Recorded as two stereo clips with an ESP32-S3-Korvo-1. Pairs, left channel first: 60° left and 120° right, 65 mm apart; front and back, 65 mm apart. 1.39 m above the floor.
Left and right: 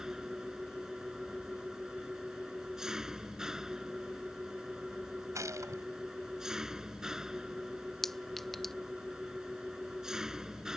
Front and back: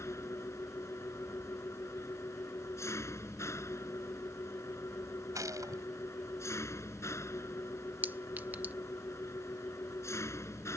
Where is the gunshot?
155° right.